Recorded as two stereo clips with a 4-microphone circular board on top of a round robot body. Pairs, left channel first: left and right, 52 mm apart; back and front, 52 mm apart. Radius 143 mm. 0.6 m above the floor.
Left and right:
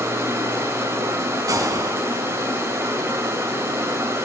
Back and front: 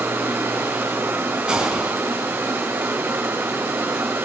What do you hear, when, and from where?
0.0 s running water: 45° right, 3 m
1.5 s a gunshot: 75° right, 2 m